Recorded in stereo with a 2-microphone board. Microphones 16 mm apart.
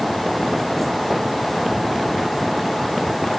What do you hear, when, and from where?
Only background noise.